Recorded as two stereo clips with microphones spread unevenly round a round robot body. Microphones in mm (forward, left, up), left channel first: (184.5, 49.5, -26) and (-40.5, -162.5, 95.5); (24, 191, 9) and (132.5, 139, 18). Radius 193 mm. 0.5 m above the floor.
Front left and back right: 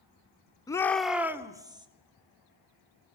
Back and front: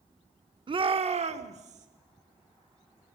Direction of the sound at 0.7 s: Straight ahead.